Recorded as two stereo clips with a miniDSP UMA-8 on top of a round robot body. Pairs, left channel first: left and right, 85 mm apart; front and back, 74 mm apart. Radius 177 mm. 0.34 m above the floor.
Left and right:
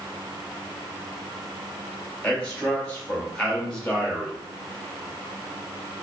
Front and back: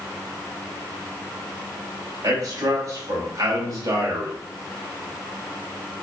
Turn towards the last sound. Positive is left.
turn(degrees=165)